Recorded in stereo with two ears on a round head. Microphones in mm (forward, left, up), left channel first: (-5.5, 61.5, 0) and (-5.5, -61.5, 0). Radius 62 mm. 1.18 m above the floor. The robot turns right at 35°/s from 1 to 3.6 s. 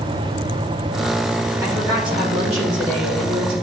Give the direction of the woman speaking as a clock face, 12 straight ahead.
5 o'clock.